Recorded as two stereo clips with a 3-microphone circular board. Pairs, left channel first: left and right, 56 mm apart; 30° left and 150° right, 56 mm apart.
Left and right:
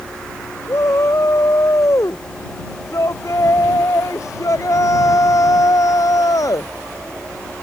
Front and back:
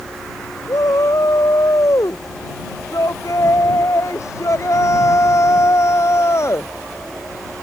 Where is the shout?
55° left; by 6.7 s 70° left.